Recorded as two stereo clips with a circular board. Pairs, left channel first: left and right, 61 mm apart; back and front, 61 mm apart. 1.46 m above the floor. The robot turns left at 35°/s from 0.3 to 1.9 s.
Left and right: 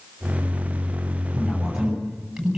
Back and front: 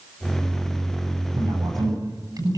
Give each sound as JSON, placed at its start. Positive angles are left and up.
{"t": 1.3, "sound": "a man speaking", "azimuth_deg": 15, "distance_m": 9.5}